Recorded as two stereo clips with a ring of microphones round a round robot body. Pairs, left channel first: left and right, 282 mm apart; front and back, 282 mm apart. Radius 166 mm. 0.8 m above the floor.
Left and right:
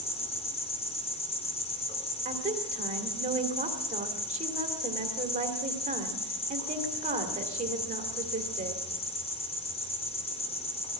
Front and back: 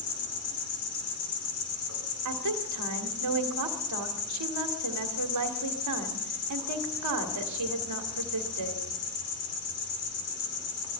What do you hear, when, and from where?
0.0 s an insect: 20° left, 4.5 m
2.2 s a woman speaking: 155° right, 2 m